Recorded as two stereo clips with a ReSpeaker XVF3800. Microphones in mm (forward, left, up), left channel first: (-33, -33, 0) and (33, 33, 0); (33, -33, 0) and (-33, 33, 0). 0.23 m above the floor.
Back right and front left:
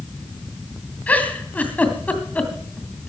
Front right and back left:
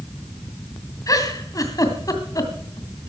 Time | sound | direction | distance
1.1 | a giggle | 70° right | 2 m